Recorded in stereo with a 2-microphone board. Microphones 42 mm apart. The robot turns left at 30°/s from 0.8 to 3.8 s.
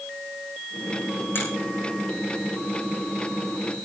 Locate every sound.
1.4 s a finger snap: 60° left (ahead or behind), 8.5 m; by 1.5 s 65° left (ahead or behind), 8.5 m